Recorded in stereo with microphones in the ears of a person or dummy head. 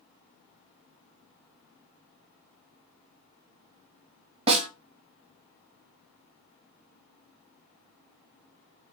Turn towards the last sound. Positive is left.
turn(degrees=-30)  # may be behind; listen again after turning